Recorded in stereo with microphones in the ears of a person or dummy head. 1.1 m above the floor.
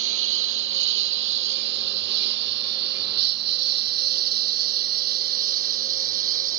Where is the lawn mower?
70° right (ahead or behind); by 6.6 s 45° right (ahead or behind).